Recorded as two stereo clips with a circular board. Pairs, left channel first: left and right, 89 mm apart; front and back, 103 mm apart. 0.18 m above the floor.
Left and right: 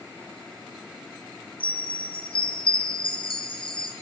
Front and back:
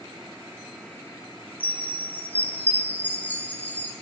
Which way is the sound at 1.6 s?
75° left.